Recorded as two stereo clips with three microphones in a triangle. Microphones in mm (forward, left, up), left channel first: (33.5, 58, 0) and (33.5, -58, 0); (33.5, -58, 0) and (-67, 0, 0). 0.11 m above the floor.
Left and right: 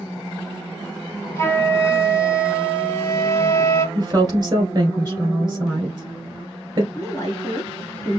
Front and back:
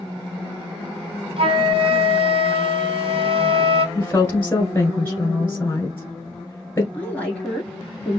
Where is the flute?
150° left, 1.1 m.